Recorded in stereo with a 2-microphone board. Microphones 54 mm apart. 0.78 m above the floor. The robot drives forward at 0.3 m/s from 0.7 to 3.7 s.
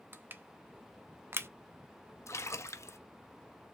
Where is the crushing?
40° right (ahead or behind), 0.7 m; by 1.5 s 50° right (ahead or behind), 0.6 m.